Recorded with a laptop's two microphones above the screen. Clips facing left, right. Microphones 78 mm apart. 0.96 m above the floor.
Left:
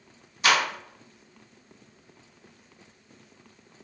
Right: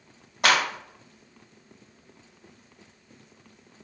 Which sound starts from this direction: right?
A clap, at 0.4 s.